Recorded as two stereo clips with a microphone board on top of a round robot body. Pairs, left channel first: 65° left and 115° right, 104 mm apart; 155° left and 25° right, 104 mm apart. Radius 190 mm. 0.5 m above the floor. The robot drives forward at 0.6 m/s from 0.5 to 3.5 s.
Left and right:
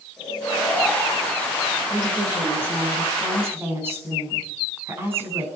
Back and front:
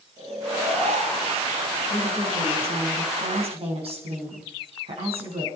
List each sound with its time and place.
0.2 s snoring: 20° right, 9.5 m
1.9 s a woman speaking: 40° right, 5.5 m; by 5.5 s 45° right, 5 m